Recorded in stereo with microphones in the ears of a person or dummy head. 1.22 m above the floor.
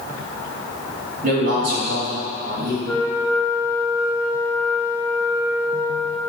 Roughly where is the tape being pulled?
I don't hear tape being pulled.